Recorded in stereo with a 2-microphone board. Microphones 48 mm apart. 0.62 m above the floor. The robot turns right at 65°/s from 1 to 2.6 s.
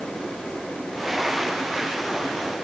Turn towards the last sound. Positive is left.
No sound to turn to.